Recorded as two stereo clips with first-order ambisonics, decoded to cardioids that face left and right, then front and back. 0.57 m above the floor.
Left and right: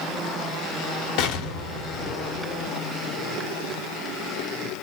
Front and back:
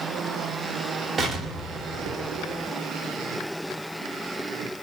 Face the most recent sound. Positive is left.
turn(degrees=110)